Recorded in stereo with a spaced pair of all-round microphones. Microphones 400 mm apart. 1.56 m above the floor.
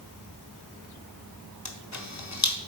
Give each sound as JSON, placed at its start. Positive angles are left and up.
{"t": 1.6, "sound": "a camera shutter", "side_deg": 45, "distance_m": 1.0}